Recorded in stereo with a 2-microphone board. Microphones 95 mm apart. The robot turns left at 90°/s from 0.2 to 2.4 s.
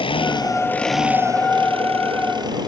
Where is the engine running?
65° left; by 2.7 s 130° right.